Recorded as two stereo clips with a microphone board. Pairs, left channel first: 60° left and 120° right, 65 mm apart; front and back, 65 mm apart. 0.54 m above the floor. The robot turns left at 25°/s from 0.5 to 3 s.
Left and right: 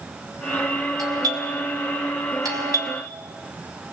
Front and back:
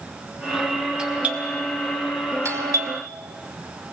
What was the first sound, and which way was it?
A doorbell, 105° right.